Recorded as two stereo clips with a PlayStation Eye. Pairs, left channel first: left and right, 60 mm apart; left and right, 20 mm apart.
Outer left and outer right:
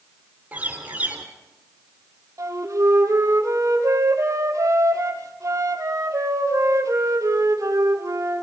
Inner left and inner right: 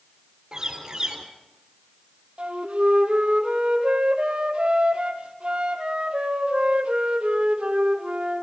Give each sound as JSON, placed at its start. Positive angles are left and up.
{"t": 0.5, "sound": "a bird", "side_deg": -25, "distance_m": 3.0}
{"t": 2.4, "sound": "a flute", "side_deg": -60, "distance_m": 2.5}